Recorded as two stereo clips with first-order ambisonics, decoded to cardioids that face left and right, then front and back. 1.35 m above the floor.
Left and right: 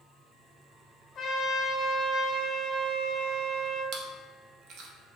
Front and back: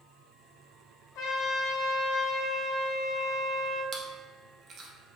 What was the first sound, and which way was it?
A trumpet, 20° left.